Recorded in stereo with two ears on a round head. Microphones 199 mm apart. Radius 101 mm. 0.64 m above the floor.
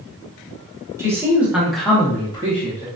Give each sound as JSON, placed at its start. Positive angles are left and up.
{"t": 1.0, "sound": "a man speaking", "side_deg": -10, "distance_m": 1.4}